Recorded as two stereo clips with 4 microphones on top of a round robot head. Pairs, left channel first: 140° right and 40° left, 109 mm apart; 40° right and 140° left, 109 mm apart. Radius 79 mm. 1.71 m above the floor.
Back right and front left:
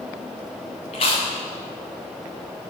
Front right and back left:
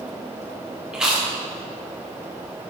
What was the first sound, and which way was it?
Chewing, 135° right.